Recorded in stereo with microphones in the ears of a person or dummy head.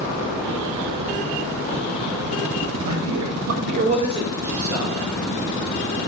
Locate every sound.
2.8 s a man speaking: 40° right (ahead or behind), 0.8 m; by 5.0 s 15° right (ahead or behind), 1.8 m